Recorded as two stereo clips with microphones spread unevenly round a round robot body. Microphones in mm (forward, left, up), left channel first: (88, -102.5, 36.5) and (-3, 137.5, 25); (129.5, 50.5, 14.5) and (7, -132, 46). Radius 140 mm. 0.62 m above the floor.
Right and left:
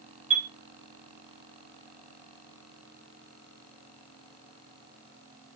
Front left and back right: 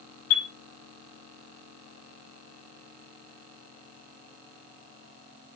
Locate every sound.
0.3 s a chime: 50° left, 5 m